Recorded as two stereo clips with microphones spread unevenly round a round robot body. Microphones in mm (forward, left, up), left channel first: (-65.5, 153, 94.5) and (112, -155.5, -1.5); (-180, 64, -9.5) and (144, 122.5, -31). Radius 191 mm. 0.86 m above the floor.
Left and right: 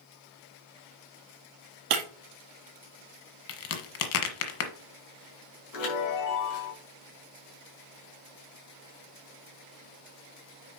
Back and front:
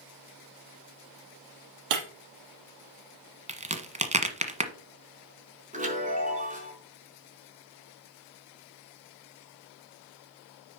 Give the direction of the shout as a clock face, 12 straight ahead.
I don't hear a shout.